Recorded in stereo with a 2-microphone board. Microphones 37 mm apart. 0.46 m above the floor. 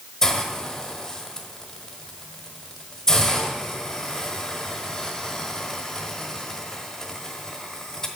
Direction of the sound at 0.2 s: 15° left (ahead or behind).